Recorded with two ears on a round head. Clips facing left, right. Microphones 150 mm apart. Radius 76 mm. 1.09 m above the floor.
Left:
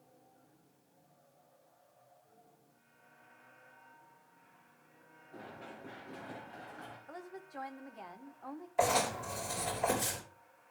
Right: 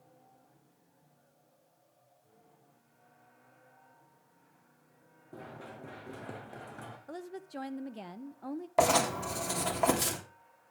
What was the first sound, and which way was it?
Running footsteps, 50° right (ahead or behind).